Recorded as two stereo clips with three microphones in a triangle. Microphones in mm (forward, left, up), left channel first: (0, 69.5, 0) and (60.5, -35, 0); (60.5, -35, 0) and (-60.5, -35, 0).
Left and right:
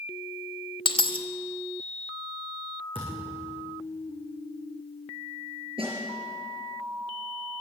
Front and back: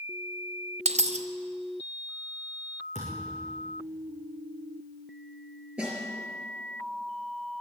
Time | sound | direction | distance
0.8 | a dropped coin | 160° left | 0.8 m
3.0 | a thud | 15° right | 5 m
5.8 | a snare drum | 100° right | 5.5 m